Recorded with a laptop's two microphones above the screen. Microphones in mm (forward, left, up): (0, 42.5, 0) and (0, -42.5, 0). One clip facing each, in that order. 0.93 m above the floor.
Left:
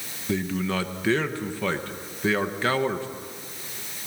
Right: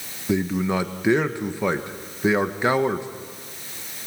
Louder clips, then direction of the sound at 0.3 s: Right 4 dB; 15° right (ahead or behind).